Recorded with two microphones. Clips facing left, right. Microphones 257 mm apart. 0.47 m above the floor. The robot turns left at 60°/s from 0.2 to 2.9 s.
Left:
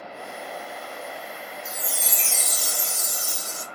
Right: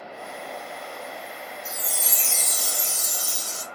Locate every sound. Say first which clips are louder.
1.6 s a chime: left 1 dB; 5° right, 0.6 m; by 3.6 s 80° right, 0.6 m